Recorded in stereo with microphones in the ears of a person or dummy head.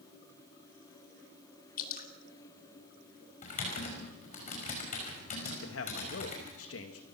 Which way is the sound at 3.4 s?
40° left (ahead or behind).